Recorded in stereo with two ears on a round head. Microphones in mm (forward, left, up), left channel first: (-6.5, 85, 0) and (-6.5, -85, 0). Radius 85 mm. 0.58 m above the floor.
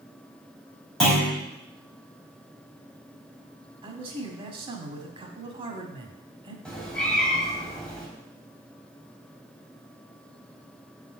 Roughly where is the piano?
No piano in this recording.